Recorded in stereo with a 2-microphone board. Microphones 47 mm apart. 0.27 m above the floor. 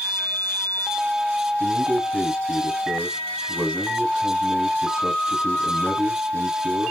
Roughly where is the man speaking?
Right.